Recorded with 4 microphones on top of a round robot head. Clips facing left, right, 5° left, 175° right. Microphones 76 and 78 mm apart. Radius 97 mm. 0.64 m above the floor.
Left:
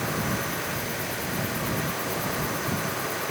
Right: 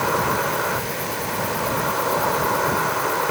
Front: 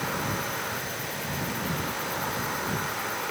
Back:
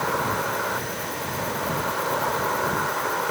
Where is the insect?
120° right.